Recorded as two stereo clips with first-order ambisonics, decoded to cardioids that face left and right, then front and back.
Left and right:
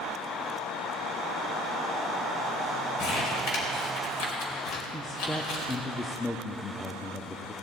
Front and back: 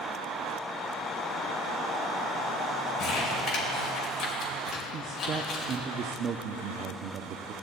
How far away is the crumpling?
About 3 m.